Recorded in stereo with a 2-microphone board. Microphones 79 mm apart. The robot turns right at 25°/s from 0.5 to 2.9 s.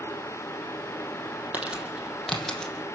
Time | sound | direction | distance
1.5 | crumpling | 20° right (ahead or behind) | 5 m